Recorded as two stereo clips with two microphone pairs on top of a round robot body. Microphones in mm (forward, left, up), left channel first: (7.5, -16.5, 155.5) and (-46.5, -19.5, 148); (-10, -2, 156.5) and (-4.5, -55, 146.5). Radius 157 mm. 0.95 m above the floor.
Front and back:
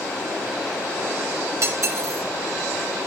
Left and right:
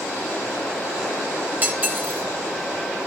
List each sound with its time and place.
1.6 s cutlery clinking: 145° right, 0.8 m